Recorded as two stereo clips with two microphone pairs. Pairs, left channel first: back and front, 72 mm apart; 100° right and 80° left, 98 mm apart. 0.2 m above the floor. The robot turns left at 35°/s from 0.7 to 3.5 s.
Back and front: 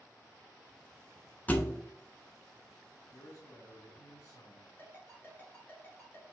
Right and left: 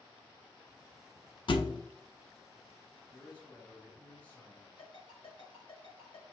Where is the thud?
120° right, 0.6 m; by 1.8 s 130° right, 0.6 m.